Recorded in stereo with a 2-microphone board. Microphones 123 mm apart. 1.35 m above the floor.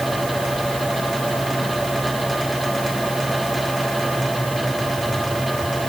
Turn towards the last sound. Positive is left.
No sound to turn to.